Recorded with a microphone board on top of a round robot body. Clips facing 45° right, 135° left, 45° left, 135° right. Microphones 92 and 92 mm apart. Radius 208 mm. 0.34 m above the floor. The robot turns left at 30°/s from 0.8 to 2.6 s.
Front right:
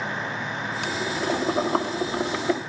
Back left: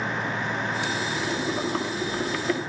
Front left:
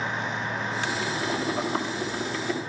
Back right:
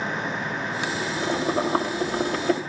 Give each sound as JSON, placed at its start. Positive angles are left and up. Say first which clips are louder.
{"t": 0.8, "sound": "boiling", "louder": "front right 1 dB, back right 3 dB", "azimuth_deg": -60, "distance_m": 3.5}